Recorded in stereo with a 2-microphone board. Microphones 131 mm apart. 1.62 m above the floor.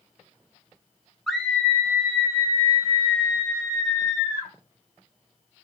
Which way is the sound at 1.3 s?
Centre (ahead or behind).